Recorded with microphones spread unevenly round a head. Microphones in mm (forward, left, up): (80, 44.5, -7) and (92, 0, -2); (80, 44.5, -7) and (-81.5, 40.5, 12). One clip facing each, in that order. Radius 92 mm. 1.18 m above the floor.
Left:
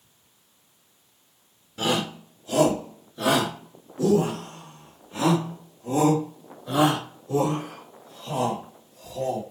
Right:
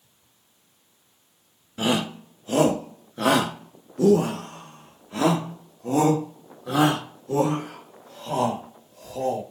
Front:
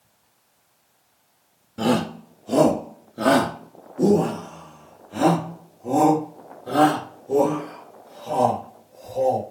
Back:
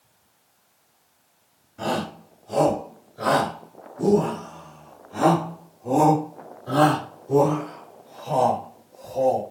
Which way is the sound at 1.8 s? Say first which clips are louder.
Right 1 dB, front 6 dB; 5° right.